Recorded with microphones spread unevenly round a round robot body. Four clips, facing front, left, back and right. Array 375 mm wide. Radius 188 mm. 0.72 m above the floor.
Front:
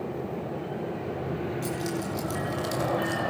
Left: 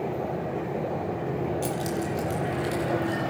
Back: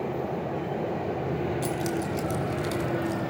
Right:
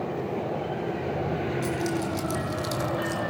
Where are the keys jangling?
Straight behind, 1.3 m; by 3.2 s 105° right, 1.9 m.